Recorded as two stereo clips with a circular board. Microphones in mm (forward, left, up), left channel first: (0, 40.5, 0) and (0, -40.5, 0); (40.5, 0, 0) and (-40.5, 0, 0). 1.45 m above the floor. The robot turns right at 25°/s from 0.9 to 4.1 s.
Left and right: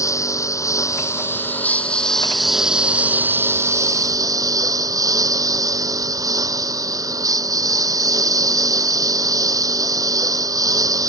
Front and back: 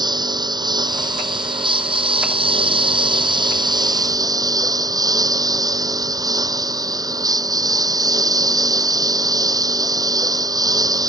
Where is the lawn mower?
145° left; by 11.1 s 135° right.